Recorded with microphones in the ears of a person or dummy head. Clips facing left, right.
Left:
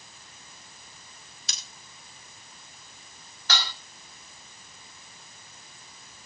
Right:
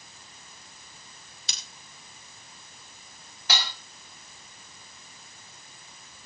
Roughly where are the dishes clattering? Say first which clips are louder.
Right 1 dB; centre.